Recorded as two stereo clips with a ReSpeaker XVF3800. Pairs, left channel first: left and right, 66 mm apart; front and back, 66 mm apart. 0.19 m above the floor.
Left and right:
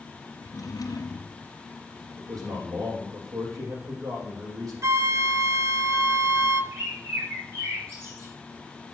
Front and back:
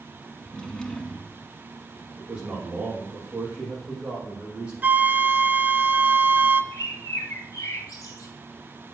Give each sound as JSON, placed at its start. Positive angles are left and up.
{"t": 0.4, "sound": "a drawer", "azimuth_deg": 80, "distance_m": 1.7}
{"t": 2.2, "sound": "a man speaking", "azimuth_deg": -110, "distance_m": 7.0}
{"t": 4.8, "sound": "a flute", "azimuth_deg": -115, "distance_m": 0.6}
{"t": 6.7, "sound": "a bird", "azimuth_deg": -40, "distance_m": 2.5}